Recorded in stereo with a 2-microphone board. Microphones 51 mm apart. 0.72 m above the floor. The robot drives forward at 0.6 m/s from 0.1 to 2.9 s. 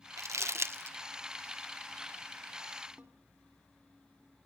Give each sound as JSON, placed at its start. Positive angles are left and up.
{"t": 0.2, "sound": "crumpling", "side_deg": -75, "distance_m": 0.8}
{"t": 3.0, "sound": "a snare drum", "side_deg": -25, "distance_m": 1.7}